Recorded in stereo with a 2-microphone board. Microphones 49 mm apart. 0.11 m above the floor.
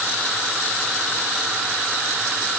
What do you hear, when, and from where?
Only background noise.